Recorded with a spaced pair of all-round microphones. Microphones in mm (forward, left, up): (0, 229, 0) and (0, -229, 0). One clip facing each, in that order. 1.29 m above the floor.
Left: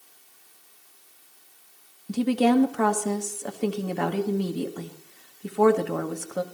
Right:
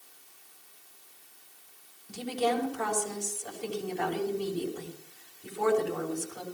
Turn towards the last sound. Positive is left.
turn(degrees=75)  # may be behind; listen again after turning